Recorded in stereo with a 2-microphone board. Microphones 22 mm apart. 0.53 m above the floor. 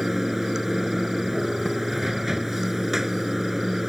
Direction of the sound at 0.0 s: 15° right (ahead or behind).